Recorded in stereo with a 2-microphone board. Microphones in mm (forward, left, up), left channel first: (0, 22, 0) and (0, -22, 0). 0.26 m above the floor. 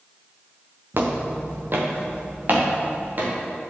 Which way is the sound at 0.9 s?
55° right (ahead or behind).